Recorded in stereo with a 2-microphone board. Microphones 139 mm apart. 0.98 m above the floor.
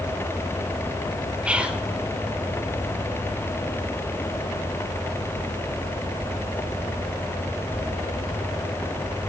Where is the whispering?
10° right (ahead or behind), 0.6 m.